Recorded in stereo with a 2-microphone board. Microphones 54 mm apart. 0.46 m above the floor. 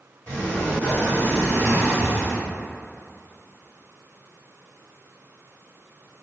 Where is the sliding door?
35° left (ahead or behind), 1.7 m.